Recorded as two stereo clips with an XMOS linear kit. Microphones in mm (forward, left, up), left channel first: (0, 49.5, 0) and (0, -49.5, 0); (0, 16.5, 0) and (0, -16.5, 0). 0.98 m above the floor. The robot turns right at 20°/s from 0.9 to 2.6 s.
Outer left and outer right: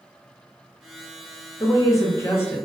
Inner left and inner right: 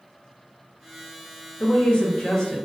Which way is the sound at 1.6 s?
35° left (ahead or behind).